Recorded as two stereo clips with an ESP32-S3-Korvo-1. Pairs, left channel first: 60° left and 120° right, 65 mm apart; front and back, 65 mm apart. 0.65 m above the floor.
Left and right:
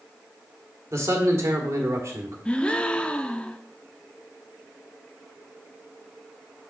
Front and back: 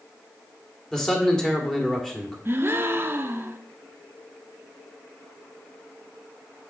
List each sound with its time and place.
0.9 s a man speaking: 80° right, 1.7 m
2.5 s a gasp: 130° left, 0.5 m